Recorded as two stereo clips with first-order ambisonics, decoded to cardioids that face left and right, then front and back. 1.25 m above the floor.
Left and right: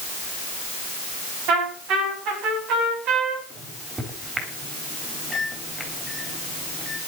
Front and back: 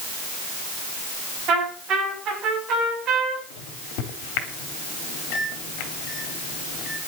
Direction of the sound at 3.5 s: 10° right.